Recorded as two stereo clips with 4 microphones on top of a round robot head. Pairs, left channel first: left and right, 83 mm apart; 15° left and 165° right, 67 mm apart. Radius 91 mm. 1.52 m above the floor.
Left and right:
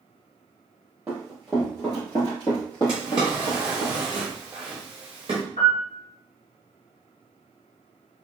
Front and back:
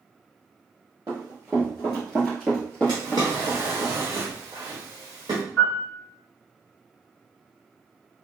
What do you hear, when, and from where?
1.1 s running footsteps: 135° right, 1.5 m; by 3.9 s 80° left, 2.5 m
2.9 s a drawer: 130° right, 1.0 m
5.6 s a piano: 90° left, 1.7 m